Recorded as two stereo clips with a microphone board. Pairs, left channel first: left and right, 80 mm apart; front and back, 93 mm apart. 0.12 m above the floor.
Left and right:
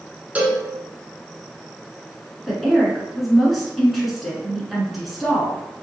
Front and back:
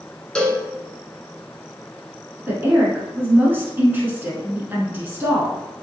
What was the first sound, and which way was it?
A cowbell, 60° right.